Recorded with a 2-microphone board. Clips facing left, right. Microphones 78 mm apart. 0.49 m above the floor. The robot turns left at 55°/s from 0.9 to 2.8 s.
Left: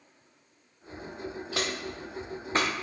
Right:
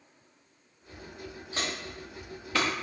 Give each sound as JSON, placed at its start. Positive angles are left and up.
{"t": 1.5, "sound": "footsteps", "side_deg": 80, "distance_m": 2.5}